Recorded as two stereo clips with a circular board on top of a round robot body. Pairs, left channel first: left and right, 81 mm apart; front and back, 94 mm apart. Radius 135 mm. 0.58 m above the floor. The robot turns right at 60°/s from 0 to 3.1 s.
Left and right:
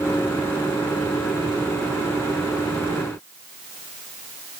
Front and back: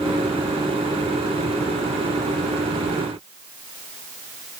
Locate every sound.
Only background noise.